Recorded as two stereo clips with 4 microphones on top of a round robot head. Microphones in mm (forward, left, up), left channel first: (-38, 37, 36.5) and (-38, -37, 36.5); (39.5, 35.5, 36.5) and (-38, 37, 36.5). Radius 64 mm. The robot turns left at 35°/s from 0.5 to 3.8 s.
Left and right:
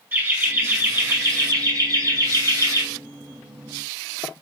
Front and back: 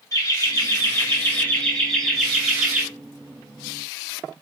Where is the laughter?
30° right, 1.7 m; by 2.8 s 115° right, 1.7 m.